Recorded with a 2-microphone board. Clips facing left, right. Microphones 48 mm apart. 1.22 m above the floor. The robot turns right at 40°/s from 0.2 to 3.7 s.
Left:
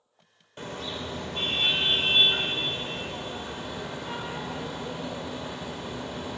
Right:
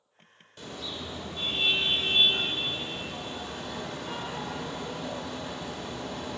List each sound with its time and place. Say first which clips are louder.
0.6 s a car horn: left 4 dB; 40° left, 2.5 m; by 6.4 s 165° left, 2.5 m